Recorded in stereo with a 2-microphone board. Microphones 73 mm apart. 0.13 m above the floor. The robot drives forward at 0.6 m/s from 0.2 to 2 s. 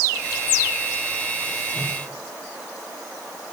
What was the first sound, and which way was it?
A whoosh, 65° left (ahead or behind).